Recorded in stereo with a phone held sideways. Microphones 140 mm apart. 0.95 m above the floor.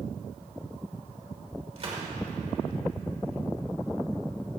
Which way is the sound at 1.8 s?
50° right (ahead or behind).